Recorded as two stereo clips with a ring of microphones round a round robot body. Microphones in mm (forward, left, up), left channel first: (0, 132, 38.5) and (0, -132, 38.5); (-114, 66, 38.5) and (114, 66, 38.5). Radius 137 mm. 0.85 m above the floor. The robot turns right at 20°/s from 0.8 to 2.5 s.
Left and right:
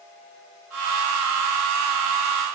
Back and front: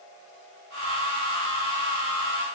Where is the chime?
I don't hear a chime.